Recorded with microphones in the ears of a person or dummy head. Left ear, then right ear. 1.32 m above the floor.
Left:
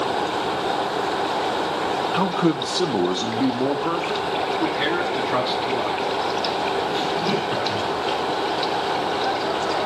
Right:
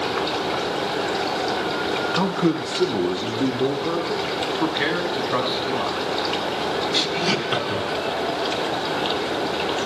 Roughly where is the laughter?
Right.